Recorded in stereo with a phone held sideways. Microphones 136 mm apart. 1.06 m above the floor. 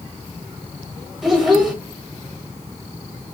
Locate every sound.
1.2 s a child speaking: 5° right (ahead or behind), 1.2 m